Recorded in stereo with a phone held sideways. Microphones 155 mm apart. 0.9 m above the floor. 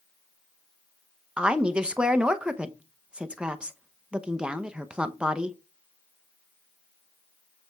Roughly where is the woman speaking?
Centre.